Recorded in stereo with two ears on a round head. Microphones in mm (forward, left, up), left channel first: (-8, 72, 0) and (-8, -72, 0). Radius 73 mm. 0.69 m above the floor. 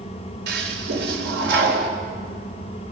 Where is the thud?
I don't hear a thud.